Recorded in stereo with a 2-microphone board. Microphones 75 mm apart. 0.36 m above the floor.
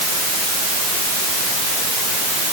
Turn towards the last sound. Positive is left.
No sound to turn to.